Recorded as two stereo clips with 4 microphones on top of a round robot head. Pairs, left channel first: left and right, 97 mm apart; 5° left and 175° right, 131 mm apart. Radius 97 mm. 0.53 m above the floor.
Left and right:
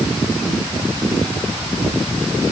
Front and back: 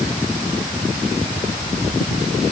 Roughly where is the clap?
No clap in this recording.